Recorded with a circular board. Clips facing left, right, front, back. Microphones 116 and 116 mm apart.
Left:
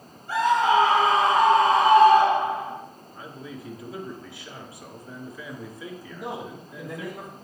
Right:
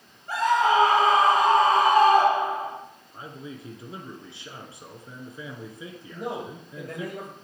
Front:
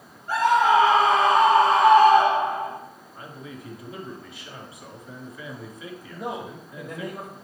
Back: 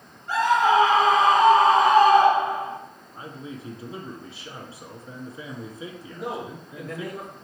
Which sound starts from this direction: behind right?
A man speaking, at 3.1 s.